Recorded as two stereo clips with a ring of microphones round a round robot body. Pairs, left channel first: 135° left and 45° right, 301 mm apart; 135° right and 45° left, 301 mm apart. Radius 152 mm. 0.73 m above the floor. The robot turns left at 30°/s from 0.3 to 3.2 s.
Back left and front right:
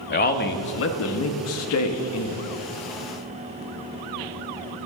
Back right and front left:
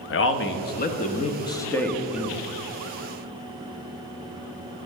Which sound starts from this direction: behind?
A man speaking, at 0.1 s.